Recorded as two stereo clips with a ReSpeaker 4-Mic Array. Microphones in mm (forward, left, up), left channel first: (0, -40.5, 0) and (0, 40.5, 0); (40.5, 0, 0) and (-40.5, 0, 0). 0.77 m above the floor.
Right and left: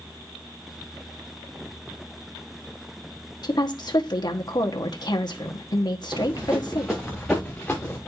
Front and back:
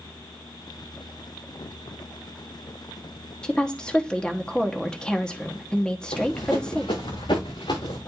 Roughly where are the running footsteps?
Ahead.